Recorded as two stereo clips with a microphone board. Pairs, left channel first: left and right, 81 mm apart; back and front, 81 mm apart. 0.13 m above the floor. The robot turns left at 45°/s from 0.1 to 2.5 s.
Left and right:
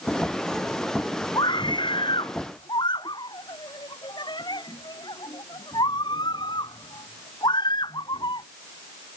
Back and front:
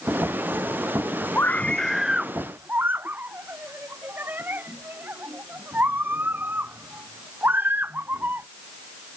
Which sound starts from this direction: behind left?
A scream, at 1.4 s.